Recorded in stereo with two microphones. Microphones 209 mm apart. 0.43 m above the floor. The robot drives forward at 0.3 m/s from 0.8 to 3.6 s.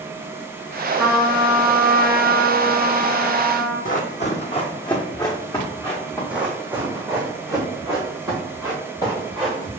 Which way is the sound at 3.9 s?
45° left (ahead or behind).